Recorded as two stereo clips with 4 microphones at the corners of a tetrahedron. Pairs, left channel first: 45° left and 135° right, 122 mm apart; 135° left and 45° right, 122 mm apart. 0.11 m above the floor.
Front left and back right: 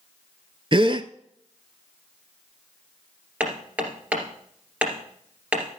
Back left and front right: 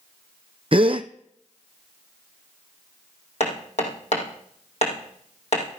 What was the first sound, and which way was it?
A gasp, 85° right.